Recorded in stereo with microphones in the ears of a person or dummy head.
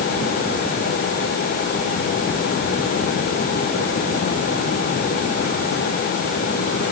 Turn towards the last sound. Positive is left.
No sound to turn to.